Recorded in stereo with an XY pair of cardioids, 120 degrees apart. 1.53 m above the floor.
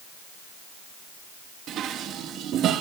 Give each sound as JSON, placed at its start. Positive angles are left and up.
{"t": 1.7, "sound": "dishes clattering", "azimuth_deg": -65, "distance_m": 1.8}